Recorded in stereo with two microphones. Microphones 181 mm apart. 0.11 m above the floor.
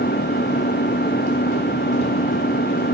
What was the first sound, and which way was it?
An engine running, 85° left.